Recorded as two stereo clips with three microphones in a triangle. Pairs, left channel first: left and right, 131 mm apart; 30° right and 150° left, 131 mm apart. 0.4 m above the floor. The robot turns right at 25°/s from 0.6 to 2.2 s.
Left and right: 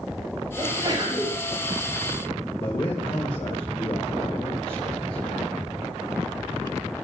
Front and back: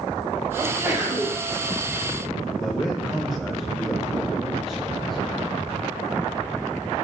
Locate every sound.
0.6 s a sneeze: 155° right, 7 m; by 1.4 s 135° right, 7 m
2.6 s a man speaking: 60° left, 2.5 m